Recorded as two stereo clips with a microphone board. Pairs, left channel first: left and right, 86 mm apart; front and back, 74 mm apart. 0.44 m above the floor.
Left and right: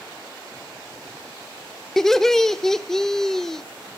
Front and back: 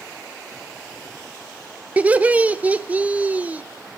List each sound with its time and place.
2.0 s laughter: 165° left, 0.7 m